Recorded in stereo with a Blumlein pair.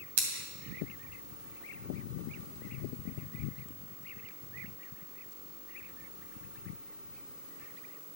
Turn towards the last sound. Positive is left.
turn(degrees=-50)